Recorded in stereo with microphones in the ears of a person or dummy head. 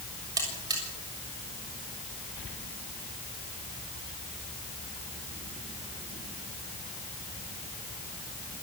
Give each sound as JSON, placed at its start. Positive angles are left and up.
{"t": 0.4, "sound": "a buzzer", "side_deg": -20, "distance_m": 7.0}